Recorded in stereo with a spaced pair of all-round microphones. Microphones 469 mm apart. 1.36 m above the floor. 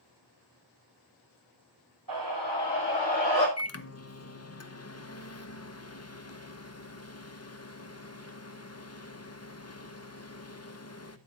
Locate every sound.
2.1 s a scream: 45° right (ahead or behind), 7.5 m; by 3.5 s 55° right (ahead or behind), 7.5 m
3.6 s a microwave: 30° left (ahead or behind), 0.9 m